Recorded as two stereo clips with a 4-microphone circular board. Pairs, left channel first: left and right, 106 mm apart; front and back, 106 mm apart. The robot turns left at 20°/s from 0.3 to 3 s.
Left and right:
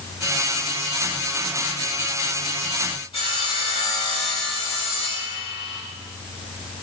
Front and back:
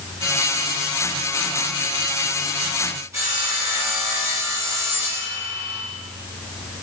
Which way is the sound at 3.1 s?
120° left.